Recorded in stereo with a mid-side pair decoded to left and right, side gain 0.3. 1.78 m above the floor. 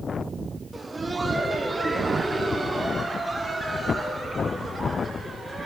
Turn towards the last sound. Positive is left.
turn(degrees=-35)